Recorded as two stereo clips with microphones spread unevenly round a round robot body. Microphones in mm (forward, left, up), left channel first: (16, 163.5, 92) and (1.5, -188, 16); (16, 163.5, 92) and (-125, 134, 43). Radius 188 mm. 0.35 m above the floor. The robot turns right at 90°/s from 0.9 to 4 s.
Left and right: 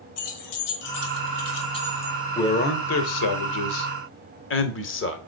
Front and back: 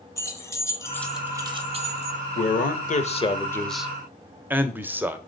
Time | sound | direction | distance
0.2 | keys jangling | 90° left | 1.6 m
2.4 | a man speaking | 5° right | 1.1 m